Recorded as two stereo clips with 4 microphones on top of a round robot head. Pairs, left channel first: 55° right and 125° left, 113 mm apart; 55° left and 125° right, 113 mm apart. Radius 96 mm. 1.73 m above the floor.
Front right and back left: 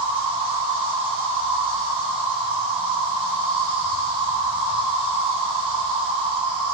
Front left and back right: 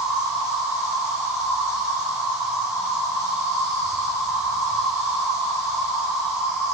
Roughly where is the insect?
Behind.